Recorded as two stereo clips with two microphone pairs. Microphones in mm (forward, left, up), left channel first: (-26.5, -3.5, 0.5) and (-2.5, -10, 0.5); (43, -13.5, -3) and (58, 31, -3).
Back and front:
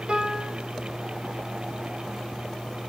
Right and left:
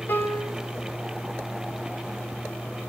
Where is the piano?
65° right, 1.7 m.